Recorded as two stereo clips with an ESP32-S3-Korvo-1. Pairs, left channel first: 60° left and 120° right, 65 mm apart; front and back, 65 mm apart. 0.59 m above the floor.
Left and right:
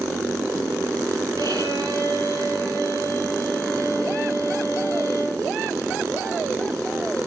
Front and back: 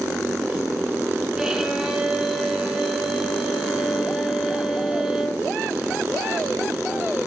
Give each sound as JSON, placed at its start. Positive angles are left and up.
{"t": 1.4, "sound": "a violin", "azimuth_deg": -95, "distance_m": 4.0}